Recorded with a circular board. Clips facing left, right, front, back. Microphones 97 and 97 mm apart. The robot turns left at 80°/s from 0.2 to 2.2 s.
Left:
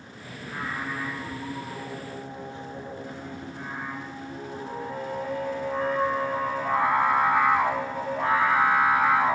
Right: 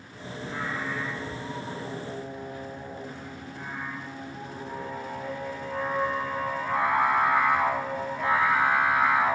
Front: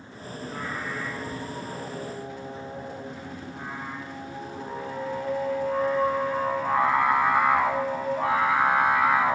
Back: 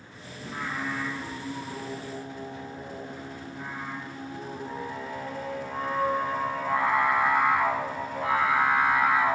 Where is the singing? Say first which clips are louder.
Right 1 dB, even; 170° right, 5.5 m; by 9.3 s 45° left, 5.5 m.